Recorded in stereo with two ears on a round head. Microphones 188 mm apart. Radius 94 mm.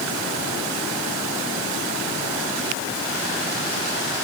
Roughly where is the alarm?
I don't hear an alarm.